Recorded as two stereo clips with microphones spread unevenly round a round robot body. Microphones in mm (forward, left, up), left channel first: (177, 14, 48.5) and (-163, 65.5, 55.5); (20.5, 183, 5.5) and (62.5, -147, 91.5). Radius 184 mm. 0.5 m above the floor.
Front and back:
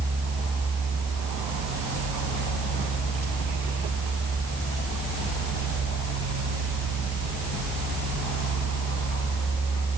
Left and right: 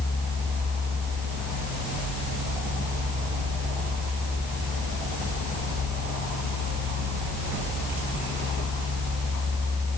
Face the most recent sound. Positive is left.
No sound to turn to.